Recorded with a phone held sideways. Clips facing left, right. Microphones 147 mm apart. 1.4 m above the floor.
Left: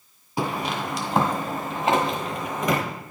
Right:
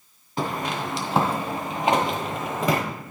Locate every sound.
0.4 s footsteps: 10° left (ahead or behind), 1.4 m; by 2.8 s 30° right (ahead or behind), 1.8 m